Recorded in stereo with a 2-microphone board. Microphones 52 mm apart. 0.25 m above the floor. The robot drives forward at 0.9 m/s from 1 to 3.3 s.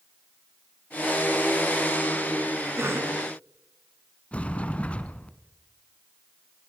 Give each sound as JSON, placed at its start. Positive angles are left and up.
{"t": 2.8, "sound": "a cough", "side_deg": -55, "distance_m": 3.0}
{"t": 4.3, "sound": "a sliding door", "side_deg": 25, "distance_m": 1.3}